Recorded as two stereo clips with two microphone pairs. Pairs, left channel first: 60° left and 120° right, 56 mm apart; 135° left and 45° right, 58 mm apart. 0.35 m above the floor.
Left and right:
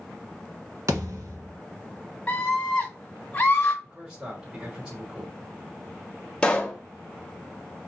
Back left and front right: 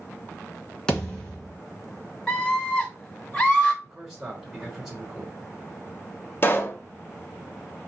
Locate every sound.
0.9 s a thud: 145° right, 1.1 m
2.3 s a scream: 85° left, 0.9 m
3.8 s a man speaking: 115° right, 1.4 m
6.4 s a pop: 125° left, 0.7 m